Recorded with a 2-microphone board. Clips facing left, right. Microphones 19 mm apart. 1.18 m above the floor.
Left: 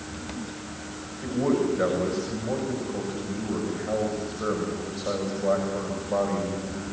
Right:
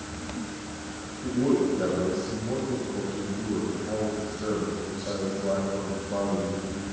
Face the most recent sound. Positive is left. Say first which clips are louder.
# even
turn(degrees=65)  # may be behind; listen again after turning